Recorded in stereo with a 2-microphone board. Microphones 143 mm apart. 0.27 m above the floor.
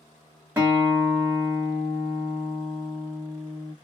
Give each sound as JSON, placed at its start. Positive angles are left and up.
{"t": 0.6, "sound": "a guitar", "side_deg": -15, "distance_m": 1.3}